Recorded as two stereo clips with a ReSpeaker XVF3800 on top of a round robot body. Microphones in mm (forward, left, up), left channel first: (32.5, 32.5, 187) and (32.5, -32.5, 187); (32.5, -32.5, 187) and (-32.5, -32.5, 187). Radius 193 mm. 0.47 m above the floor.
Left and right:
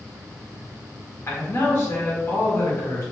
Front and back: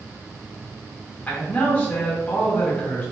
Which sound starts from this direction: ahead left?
A man speaking, at 1.3 s.